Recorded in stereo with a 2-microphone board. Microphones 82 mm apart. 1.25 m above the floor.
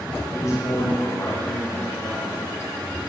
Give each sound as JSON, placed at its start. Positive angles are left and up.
{"t": 0.3, "sound": "a man speaking", "side_deg": 40, "distance_m": 4.5}